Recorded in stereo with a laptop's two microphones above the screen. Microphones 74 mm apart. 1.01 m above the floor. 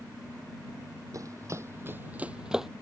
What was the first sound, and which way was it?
Running footsteps, 50° right (ahead or behind).